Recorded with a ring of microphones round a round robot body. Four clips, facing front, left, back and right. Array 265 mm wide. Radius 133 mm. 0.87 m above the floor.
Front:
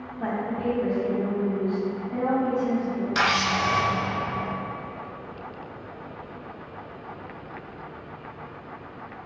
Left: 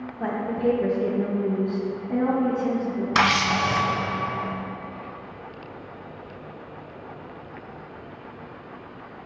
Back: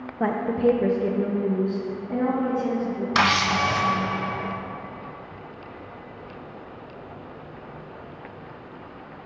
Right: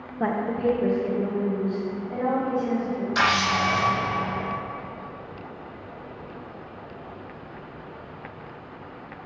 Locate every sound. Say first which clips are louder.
0.2 s a woman speaking: even, back 6 dB; 150° right, 0.6 m; by 3.0 s 120° left, 1.7 m
3.1 s a camera shutter: left 1 dB, back 3 dB; 125° left, 1.2 m